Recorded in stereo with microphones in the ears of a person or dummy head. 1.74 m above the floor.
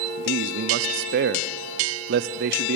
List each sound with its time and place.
0.2 s a man speaking: 65° right (ahead or behind), 0.7 m